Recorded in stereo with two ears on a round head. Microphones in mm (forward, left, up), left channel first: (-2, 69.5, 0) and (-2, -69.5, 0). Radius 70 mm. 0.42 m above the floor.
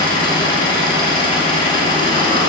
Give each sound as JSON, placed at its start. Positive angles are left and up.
{"t": 0.0, "sound": "an engine running", "side_deg": 35, "distance_m": 1.4}